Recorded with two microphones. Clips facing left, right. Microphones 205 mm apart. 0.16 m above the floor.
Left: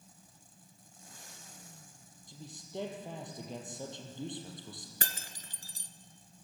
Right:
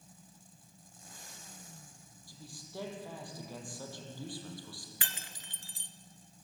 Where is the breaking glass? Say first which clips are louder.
Left 4 dB; 45° left (ahead or behind), 1.3 m.